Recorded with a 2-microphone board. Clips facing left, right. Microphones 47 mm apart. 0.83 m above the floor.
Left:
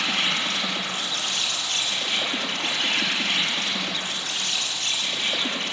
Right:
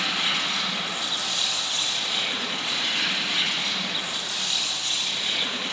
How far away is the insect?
About 7 m.